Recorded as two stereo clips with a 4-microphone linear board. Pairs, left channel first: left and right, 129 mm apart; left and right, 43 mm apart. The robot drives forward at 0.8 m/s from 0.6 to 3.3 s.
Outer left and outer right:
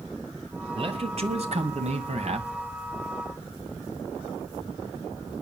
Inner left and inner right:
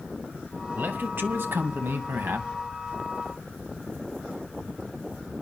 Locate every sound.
0.8 s a man speaking: 45° right (ahead or behind), 2 m; by 2.5 s 55° right (ahead or behind), 1.9 m